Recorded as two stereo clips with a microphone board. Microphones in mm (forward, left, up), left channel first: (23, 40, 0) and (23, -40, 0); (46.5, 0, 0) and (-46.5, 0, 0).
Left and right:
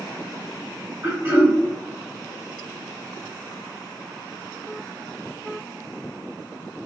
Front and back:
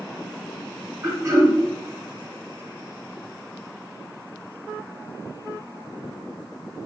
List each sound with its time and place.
1.0 s throat clearing: 140° right, 1.4 m